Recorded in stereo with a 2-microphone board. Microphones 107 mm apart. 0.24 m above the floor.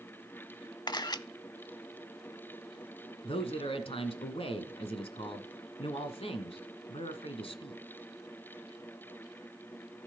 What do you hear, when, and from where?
0.9 s a camera shutter: 40° left (ahead or behind), 0.5 m
3.2 s a man speaking: 60° left (ahead or behind), 1.8 m